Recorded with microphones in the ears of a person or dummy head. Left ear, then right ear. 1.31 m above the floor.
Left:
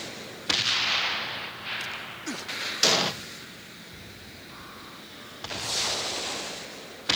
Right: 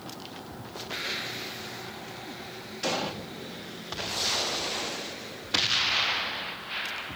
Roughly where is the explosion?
Left.